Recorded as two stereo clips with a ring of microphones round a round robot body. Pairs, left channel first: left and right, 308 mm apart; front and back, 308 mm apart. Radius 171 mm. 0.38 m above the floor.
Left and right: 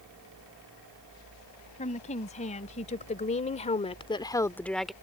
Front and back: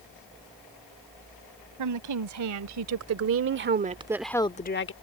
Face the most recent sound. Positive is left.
turn(degrees=0)